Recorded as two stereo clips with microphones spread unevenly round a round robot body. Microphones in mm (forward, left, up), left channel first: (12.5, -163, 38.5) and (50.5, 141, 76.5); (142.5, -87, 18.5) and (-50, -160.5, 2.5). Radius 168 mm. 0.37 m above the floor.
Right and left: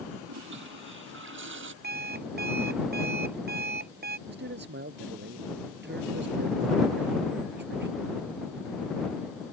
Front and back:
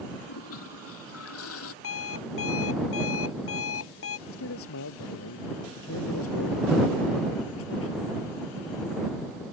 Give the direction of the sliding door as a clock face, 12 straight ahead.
No sliding door in this recording.